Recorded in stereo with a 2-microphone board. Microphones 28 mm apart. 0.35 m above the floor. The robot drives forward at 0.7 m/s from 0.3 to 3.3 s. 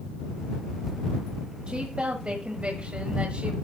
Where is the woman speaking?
40° right (ahead or behind), 1.6 m; by 3.5 s 50° right (ahead or behind), 1.4 m.